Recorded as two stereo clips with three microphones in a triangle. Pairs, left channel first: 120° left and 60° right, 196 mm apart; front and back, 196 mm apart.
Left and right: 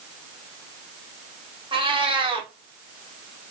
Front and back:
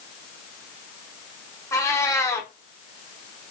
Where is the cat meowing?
55° right, 0.8 m.